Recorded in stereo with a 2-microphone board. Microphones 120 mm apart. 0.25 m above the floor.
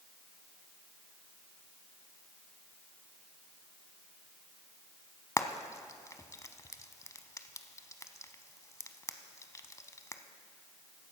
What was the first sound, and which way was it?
Frying, 30° left (ahead or behind).